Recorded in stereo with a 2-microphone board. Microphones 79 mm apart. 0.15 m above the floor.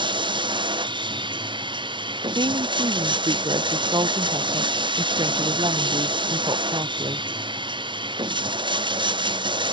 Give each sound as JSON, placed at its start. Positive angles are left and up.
{"t": 0.0, "sound": "running water", "side_deg": -85}
{"t": 2.4, "sound": "a woman speaking", "side_deg": -75}